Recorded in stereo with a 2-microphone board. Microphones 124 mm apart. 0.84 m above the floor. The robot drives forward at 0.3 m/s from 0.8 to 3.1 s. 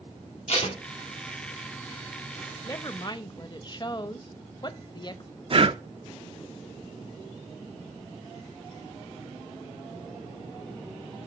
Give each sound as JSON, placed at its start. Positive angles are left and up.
{"t": 0.5, "sound": "tape being pulled", "side_deg": 55, "distance_m": 2.0}
{"t": 2.6, "sound": "a woman speaking", "side_deg": 30, "distance_m": 0.7}
{"t": 5.5, "sound": "breathing", "side_deg": -50, "distance_m": 0.5}